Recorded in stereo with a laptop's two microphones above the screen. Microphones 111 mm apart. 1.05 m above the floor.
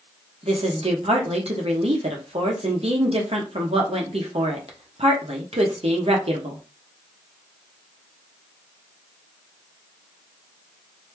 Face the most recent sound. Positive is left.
turn(degrees=-65)  # may be behind; listen again after turning